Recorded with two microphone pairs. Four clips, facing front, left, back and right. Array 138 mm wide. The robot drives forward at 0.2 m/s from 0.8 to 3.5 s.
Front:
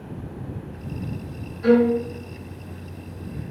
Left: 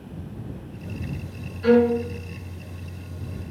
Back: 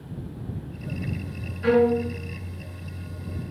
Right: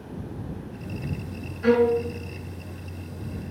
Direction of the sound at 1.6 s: 115° right.